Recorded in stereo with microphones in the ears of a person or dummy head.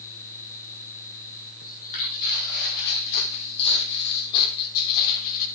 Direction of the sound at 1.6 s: 50° left (ahead or behind).